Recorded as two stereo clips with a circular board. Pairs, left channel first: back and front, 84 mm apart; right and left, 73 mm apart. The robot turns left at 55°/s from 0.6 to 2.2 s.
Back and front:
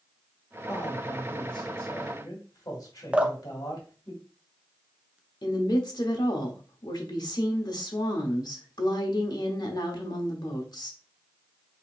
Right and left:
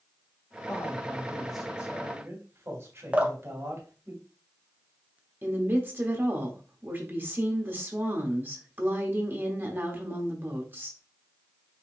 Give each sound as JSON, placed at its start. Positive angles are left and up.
{"t": 0.7, "sound": "a man speaking", "azimuth_deg": -135, "distance_m": 2.0}
{"t": 3.1, "sound": "dripping", "azimuth_deg": 55, "distance_m": 0.6}
{"t": 5.4, "sound": "a woman speaking", "azimuth_deg": 150, "distance_m": 1.2}